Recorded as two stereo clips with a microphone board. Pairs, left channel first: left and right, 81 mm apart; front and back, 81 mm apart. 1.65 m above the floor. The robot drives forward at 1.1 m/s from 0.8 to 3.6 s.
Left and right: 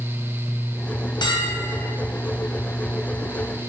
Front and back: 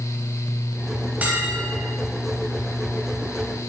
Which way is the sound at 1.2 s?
110° left.